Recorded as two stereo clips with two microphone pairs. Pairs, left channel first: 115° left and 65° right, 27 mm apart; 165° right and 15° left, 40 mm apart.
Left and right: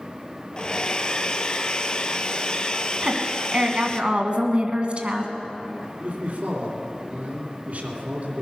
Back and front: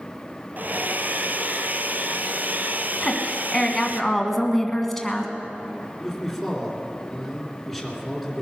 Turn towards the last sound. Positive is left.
turn(degrees=-75)